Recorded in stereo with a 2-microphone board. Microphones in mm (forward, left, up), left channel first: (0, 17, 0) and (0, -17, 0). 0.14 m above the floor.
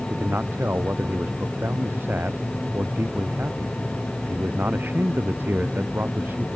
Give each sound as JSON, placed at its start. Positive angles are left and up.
{"t": 0.1, "sound": "a man speaking", "side_deg": -85}